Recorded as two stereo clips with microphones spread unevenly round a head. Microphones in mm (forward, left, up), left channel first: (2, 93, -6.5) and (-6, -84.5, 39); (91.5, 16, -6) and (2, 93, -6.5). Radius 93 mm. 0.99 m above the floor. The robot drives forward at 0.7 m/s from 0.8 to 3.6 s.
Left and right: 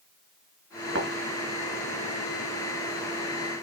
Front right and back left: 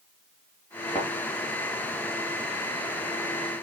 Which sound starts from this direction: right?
A thud, at 0.9 s.